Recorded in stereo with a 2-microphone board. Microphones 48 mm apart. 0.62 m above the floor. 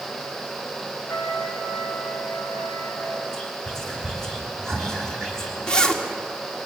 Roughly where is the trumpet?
Left.